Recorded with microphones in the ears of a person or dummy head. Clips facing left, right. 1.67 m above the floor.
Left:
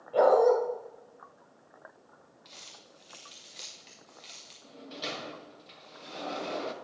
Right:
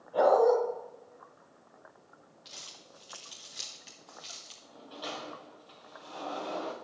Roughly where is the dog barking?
Left.